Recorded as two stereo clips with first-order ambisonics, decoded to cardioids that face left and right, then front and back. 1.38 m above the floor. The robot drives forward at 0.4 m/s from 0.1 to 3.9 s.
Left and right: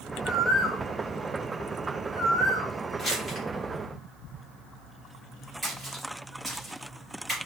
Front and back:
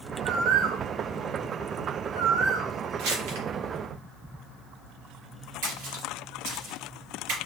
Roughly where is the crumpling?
Behind.